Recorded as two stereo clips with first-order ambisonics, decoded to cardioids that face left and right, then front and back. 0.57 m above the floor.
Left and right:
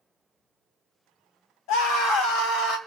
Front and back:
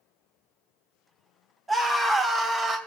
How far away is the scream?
About 4 m.